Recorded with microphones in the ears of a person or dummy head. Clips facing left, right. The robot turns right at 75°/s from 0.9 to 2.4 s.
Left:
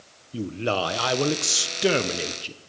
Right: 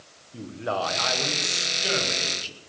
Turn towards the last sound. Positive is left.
turn(degrees=155)